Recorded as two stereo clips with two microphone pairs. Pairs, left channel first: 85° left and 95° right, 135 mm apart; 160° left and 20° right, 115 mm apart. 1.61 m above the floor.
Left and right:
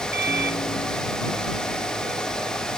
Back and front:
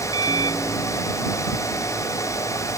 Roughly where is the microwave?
Left.